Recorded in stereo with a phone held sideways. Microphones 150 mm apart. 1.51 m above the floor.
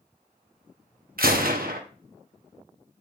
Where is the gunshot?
75° right (ahead or behind), 0.8 m.